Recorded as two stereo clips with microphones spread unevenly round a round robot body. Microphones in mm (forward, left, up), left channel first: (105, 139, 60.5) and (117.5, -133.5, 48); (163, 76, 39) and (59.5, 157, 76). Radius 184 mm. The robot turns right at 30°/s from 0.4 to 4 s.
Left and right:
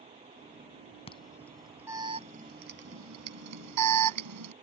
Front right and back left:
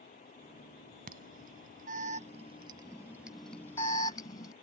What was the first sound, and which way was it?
An alarm, 165° left.